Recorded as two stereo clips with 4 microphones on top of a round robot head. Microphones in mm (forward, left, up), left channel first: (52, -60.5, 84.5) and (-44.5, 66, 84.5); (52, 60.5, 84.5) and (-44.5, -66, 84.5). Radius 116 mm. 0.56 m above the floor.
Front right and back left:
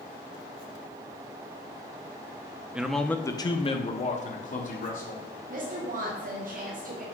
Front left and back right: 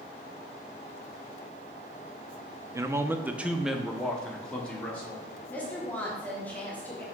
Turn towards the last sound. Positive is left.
turn(degrees=130)